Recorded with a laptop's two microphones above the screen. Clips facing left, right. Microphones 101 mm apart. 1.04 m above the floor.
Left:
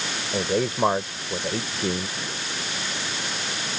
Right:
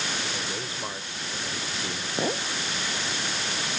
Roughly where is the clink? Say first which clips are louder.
Right 7 dB; right.